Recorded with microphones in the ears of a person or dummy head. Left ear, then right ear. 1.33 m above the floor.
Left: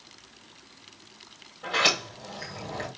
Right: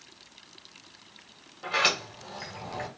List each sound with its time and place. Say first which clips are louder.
1.6 s a sliding door: left 2 dB; 15° right (ahead or behind), 3 m